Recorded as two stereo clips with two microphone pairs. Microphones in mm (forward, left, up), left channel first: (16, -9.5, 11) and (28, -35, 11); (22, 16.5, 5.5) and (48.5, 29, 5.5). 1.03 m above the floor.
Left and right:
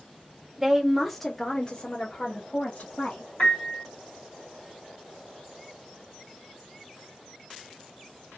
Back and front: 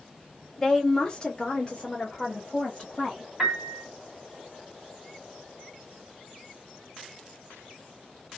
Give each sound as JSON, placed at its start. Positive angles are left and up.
{"t": 0.6, "sound": "a woman speaking", "azimuth_deg": -100, "distance_m": 0.8}
{"t": 3.4, "sound": "a piano", "azimuth_deg": 115, "distance_m": 2.0}